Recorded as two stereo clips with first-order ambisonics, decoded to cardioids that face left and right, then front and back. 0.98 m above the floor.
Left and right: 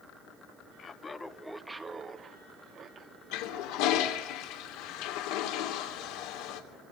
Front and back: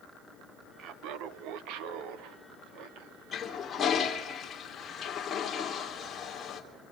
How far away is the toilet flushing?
About 3 m.